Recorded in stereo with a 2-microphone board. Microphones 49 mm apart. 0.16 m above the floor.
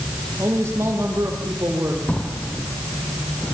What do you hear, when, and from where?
0.4 s a man speaking: 60° right (ahead or behind), 7.5 m
2.1 s a drawer: 25° left (ahead or behind), 3.5 m